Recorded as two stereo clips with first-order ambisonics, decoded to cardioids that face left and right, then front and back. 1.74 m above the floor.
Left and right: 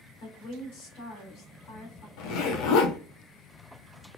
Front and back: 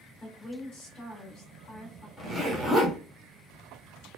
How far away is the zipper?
About 1.1 m.